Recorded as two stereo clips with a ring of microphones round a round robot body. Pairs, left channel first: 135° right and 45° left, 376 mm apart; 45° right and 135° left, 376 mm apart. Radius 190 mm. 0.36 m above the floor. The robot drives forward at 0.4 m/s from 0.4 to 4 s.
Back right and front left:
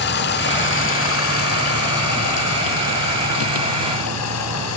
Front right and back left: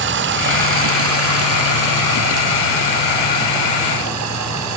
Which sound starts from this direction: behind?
Running water, at 0.0 s.